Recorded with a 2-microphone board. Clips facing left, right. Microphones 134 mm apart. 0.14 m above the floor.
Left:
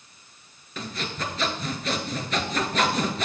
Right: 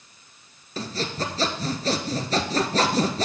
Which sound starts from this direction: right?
Sawing, at 0.8 s.